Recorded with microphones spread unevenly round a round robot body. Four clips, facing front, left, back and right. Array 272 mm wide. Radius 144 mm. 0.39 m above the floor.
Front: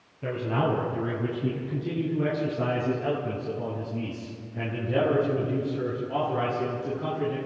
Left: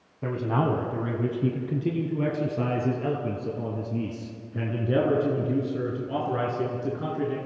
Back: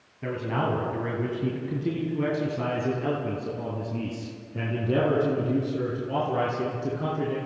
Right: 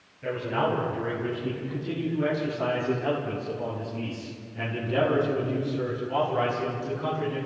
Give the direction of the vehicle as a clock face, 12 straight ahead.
I don't hear a vehicle.